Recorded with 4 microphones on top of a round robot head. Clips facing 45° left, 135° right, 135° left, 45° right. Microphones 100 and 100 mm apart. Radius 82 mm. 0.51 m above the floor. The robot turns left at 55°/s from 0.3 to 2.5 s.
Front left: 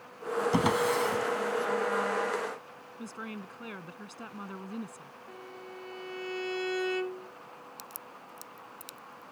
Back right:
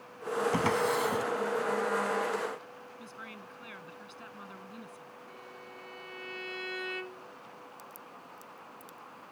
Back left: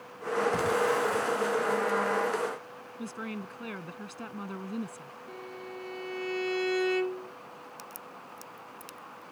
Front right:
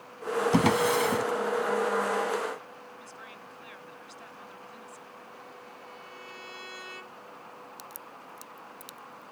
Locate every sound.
0.5 s a drawer: 25° right; by 1.2 s 65° right
3.0 s a woman speaking: 95° left
5.3 s a violin: 105° left
7.8 s a crack: 35° left